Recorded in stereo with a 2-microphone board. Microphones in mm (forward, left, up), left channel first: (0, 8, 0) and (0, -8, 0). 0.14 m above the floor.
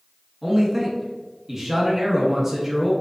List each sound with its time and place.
0.4 s a man speaking: 20° right (ahead or behind), 1.3 m